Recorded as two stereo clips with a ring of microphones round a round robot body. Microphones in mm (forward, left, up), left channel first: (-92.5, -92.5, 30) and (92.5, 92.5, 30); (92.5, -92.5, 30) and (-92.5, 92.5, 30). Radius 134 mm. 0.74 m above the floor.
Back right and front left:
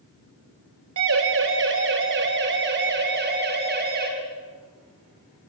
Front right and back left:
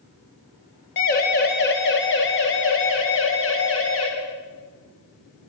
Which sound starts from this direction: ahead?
A siren, at 1.0 s.